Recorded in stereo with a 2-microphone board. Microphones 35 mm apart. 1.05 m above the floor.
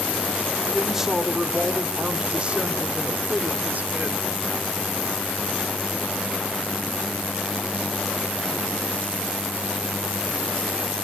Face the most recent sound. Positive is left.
turn(degrees=-60)  # may be behind; listen again after turning